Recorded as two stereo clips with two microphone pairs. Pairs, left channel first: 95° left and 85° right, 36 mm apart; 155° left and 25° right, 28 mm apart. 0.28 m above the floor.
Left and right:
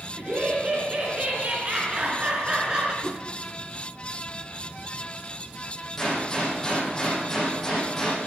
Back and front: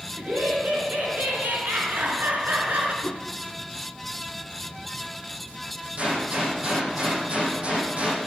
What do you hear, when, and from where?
0.2 s laughter: 50° right, 4 m; by 2.9 s 25° right, 4 m
3.0 s a whoosh: 175° left, 1.3 m
6.0 s a gunshot: 10° left, 8 m